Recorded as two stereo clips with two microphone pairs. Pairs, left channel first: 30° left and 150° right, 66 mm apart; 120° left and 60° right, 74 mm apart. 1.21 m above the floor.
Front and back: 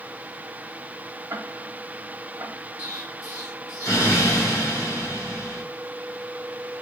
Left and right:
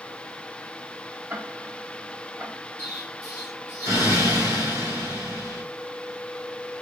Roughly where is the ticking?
Behind right.